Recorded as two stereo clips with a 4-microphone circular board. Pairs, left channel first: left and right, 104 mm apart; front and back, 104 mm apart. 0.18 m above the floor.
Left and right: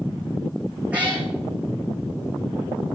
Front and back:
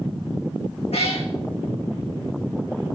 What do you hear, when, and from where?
0.9 s a cat meowing: 15° right, 2.5 m